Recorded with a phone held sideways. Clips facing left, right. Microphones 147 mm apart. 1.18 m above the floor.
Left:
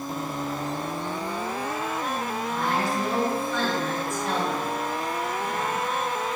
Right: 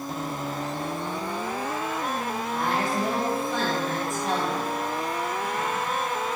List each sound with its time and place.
2.5 s a woman speaking: 55° right (ahead or behind), 1.7 m; by 5.8 s 40° left (ahead or behind), 1.1 m